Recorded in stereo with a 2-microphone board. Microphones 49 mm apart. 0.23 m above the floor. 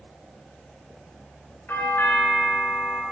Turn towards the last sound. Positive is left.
turn(degrees=45)  # may be behind; listen again after turning